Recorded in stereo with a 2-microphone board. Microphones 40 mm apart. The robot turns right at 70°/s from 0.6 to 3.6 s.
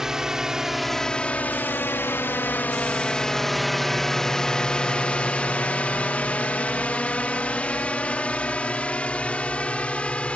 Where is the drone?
15° right (ahead or behind); by 10.4 s 30° left (ahead or behind).